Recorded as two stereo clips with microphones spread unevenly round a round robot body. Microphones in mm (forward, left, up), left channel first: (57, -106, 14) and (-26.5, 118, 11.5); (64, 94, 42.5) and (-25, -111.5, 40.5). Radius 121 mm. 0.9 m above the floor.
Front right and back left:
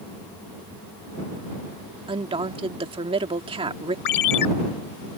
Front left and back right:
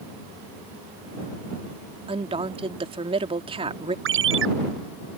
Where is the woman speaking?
Straight behind.